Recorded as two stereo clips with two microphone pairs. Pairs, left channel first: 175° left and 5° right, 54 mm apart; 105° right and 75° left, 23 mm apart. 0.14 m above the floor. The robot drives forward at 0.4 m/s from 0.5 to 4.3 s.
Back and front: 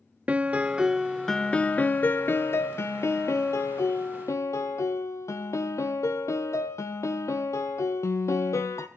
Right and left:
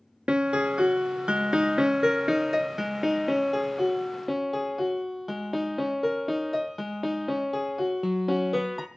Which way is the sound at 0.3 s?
50° left.